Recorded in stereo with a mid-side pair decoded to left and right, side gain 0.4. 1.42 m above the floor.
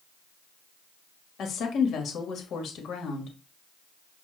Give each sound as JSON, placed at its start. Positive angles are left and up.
{"t": 1.4, "sound": "a woman speaking", "azimuth_deg": 70, "distance_m": 1.3}